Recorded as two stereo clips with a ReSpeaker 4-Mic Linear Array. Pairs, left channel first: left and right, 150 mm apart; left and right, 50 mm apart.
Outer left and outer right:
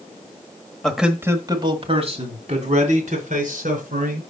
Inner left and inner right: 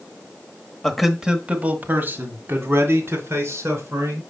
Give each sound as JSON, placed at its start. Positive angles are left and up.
{"t": 0.8, "sound": "a man speaking", "side_deg": 5, "distance_m": 1.1}